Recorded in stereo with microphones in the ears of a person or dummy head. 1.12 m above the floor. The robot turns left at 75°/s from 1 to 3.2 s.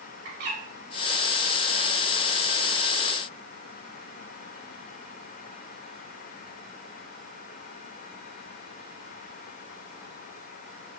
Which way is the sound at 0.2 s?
60° right (ahead or behind).